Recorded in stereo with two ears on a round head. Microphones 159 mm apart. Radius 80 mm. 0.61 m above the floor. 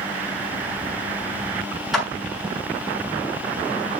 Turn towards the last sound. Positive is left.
turn(degrees=0)  # may be behind; listen again after turning